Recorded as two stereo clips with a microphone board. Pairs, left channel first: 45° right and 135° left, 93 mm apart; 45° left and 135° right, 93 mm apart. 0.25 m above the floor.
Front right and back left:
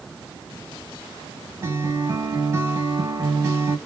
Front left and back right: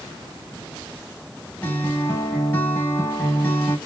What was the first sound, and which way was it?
A guitar, 100° left.